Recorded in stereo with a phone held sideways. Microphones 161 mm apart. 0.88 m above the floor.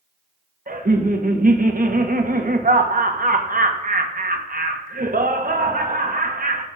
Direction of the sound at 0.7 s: 60° right (ahead or behind).